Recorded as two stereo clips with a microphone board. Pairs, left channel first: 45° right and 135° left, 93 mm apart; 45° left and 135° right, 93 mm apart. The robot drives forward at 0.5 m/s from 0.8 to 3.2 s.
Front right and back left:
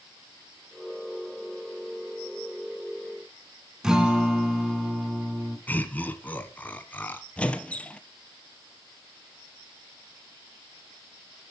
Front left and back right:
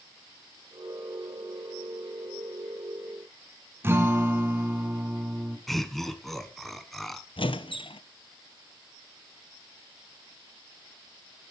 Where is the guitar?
150° right, 1.6 m.